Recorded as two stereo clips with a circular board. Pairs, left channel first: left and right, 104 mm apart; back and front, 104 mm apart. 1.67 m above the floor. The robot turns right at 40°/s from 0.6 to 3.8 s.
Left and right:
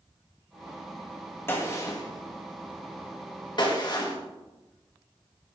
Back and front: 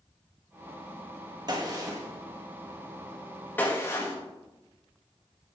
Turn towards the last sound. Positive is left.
turn(degrees=120)